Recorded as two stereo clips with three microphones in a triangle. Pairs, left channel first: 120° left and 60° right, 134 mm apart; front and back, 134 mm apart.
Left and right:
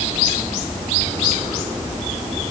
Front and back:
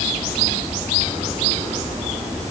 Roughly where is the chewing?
No chewing in this recording.